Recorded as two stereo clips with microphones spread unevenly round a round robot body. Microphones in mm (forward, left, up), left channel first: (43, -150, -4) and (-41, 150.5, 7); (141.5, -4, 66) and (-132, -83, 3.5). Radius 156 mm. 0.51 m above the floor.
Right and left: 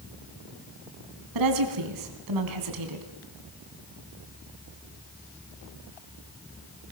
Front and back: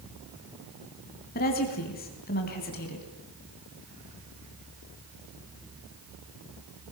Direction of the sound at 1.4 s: 80° left.